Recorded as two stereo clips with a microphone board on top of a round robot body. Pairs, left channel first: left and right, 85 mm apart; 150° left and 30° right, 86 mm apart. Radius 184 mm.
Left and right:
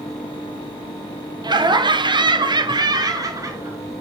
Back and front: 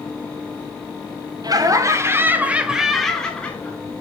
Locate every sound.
1.4 s laughter: 65° right, 1.3 m; by 3.8 s 140° right, 1.5 m